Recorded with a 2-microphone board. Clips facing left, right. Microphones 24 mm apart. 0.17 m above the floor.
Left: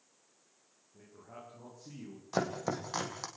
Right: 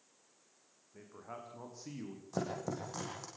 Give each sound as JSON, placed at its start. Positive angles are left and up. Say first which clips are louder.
{"t": 0.9, "sound": "a man speaking", "louder": "right 3 dB", "side_deg": -60, "distance_m": 8.5}
{"t": 2.3, "sound": "chopping", "louder": "left 5 dB", "side_deg": 45, "distance_m": 4.5}